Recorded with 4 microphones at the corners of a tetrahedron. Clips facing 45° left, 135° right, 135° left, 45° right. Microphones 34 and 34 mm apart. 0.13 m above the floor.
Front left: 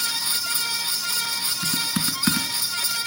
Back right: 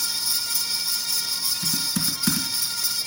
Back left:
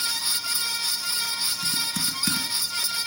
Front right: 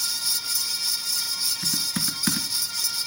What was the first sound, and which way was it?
Typing on a keyboard, straight ahead.